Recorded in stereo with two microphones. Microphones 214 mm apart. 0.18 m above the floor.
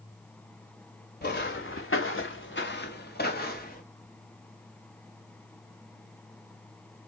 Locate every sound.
1.2 s footsteps: 55° left (ahead or behind), 0.7 m; by 3.8 s 45° left (ahead or behind), 1.5 m